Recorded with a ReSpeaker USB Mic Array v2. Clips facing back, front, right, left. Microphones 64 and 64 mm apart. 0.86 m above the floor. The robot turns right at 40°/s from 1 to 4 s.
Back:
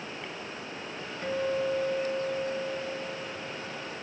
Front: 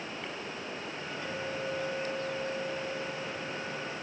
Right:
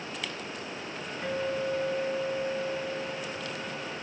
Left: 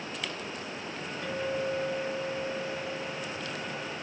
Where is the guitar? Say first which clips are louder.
Back 9 dB, right 1 dB; 145° right, 1.0 m; by 3.9 s 40° right, 1.0 m.